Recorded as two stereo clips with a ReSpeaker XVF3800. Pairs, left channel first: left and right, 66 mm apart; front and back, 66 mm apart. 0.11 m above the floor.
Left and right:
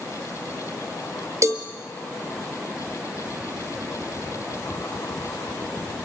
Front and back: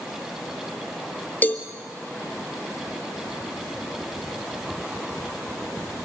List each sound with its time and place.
1.4 s a cowbell: 60° right, 1.6 m